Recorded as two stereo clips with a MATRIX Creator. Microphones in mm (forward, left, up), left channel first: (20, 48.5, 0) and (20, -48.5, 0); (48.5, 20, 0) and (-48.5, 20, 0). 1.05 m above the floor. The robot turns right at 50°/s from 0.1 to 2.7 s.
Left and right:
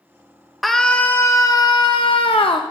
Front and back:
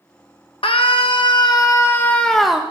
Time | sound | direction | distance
0.6 | a scream | straight ahead | 0.9 m